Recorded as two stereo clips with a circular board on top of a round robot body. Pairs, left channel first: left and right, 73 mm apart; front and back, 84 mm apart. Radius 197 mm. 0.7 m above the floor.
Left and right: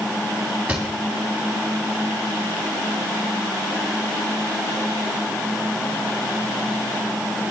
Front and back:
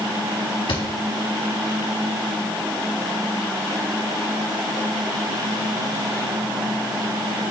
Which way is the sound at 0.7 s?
15° right.